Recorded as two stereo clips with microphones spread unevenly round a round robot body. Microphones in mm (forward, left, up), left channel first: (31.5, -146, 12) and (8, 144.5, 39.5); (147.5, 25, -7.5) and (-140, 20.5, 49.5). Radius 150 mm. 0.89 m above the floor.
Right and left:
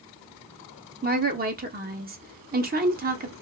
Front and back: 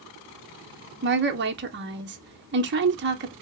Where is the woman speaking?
140° left, 0.7 m.